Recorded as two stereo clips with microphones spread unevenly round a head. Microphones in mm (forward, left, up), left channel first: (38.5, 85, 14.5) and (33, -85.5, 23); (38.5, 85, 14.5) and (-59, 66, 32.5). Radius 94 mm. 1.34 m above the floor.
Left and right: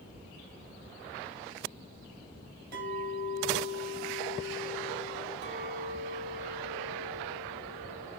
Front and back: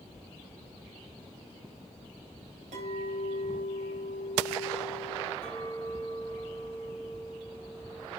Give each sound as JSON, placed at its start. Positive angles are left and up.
{"t": 2.7, "sound": "a clink", "azimuth_deg": -140, "distance_m": 3.5}
{"t": 5.4, "sound": "a clink", "azimuth_deg": -70, "distance_m": 2.0}